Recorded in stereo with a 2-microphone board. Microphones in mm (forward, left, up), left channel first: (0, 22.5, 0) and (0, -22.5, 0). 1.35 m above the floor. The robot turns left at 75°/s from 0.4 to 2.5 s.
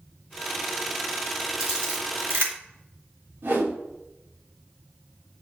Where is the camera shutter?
5° right (ahead or behind), 2 m; by 2.5 s 70° right (ahead or behind), 2 m.